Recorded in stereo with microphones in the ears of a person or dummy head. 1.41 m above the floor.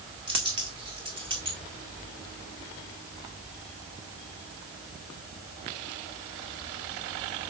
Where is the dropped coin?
25° right (ahead or behind), 1.7 m.